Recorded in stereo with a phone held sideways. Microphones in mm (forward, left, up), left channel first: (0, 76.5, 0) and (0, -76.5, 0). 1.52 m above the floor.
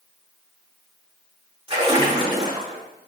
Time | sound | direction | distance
1.7 | a splash | 35° right (ahead or behind) | 4 m